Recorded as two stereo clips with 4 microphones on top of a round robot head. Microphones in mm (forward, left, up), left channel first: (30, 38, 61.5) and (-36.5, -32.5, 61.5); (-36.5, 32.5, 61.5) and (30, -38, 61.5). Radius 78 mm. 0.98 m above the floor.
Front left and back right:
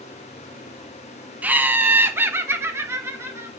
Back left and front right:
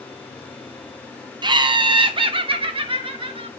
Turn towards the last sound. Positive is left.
turn(degrees=-70)